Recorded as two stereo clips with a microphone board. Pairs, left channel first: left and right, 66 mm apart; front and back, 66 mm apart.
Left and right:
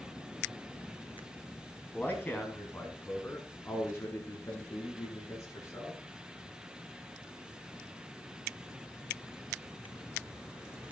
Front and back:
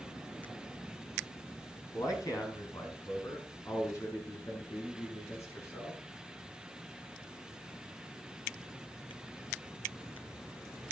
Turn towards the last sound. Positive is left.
turn(degrees=45)